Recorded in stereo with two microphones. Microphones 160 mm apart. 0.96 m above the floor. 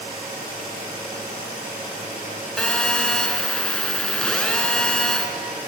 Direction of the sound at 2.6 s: 5° left (ahead or behind).